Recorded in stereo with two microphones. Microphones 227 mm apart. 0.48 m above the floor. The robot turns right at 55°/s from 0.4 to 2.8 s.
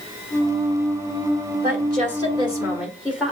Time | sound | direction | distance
1.6 | a woman speaking | 70° right | 1.7 m